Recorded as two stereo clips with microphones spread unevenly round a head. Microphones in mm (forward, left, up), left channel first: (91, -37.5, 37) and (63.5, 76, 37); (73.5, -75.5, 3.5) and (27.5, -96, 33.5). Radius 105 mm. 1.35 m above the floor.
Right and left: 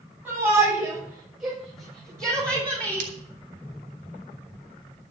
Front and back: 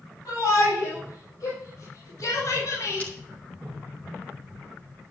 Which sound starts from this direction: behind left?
Breaking glass, at 3.0 s.